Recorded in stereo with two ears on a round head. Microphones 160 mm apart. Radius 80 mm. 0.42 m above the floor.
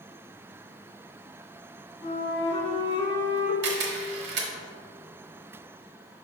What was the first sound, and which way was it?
A flute, 30° left (ahead or behind).